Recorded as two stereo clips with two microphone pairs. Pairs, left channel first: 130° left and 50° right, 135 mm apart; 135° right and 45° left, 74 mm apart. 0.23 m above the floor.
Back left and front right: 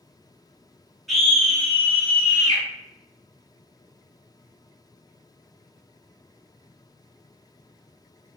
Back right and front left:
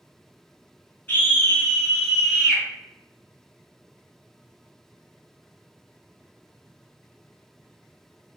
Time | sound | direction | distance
1.1 | a scream | 145° right | 1.5 m